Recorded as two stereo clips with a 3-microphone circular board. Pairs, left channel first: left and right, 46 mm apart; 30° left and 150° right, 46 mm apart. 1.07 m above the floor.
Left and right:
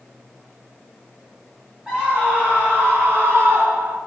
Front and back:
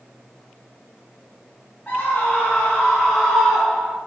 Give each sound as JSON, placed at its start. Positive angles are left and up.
{"t": 1.9, "sound": "a scream", "azimuth_deg": -25, "distance_m": 3.0}